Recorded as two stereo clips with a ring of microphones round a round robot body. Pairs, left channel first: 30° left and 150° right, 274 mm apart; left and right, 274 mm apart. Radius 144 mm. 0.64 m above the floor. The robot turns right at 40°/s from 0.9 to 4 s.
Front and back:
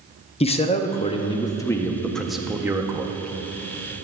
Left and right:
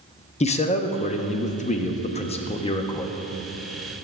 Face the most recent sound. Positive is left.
turn(degrees=-170)